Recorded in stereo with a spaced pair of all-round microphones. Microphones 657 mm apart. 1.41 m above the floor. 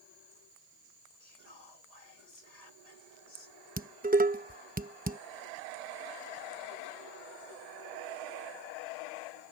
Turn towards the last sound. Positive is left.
turn(degrees=-15)  # may be behind; listen again after turning